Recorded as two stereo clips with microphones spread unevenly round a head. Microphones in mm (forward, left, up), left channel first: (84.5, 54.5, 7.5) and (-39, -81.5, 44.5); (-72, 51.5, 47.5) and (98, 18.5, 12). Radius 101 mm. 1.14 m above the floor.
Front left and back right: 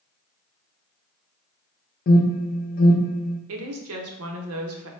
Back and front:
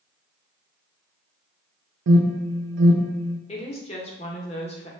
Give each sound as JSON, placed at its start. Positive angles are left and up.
{"t": 2.1, "sound": "an alarm", "azimuth_deg": 0, "distance_m": 0.6}
{"t": 3.5, "sound": "a woman speaking", "azimuth_deg": -130, "distance_m": 0.8}